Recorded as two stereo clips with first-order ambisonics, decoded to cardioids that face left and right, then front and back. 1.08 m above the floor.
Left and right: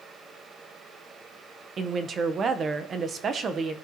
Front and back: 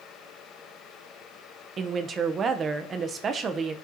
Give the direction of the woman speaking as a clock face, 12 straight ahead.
5 o'clock.